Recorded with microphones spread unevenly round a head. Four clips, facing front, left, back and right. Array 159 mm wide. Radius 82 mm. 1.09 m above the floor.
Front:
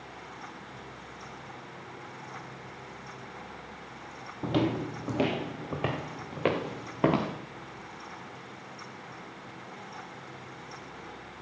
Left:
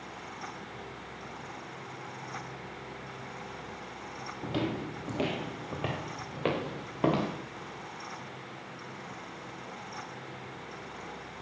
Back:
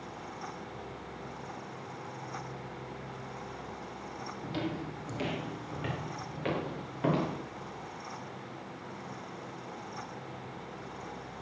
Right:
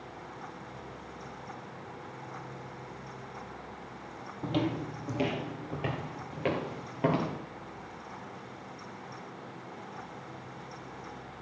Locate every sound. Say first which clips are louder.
4.4 s footsteps: right 2 dB, front 9 dB; 5° right, 1.6 m; by 7.3 s 20° left, 5.5 m